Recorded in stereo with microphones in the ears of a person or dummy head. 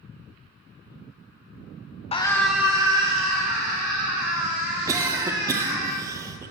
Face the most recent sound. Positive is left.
turn(degrees=-20)  # may be behind; listen again after turning